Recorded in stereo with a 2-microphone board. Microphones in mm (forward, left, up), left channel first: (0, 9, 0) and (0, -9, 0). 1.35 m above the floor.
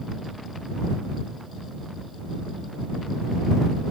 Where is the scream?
I don't hear a scream.